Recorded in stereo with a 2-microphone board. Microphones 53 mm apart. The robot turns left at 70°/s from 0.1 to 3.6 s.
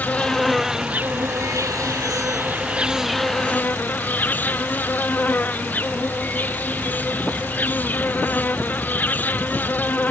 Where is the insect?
30° left; by 10.1 s 145° left.